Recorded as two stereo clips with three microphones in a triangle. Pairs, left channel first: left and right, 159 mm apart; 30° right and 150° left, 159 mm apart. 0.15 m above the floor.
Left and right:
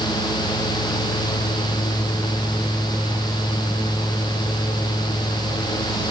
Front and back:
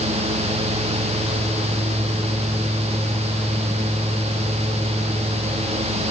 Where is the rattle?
I don't hear a rattle.